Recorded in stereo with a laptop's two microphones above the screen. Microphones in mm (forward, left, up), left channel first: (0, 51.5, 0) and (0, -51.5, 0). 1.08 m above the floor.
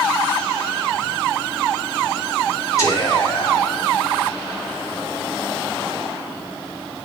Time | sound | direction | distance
2.8 | whispering | 35° left (ahead or behind) | 3 m